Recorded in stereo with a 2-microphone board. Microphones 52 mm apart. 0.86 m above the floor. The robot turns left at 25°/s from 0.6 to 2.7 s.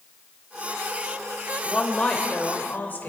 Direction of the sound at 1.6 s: 10° left (ahead or behind).